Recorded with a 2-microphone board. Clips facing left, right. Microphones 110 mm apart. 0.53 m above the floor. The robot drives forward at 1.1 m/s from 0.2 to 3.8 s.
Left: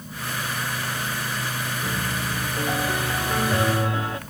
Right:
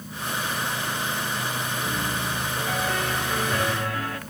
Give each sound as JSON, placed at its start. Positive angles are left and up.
{"t": 1.8, "sound": "a piano", "side_deg": 10, "distance_m": 2.5}